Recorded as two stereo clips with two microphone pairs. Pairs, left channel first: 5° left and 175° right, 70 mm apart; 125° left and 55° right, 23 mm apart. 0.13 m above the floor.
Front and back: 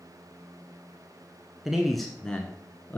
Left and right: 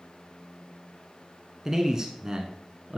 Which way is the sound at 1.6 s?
95° right.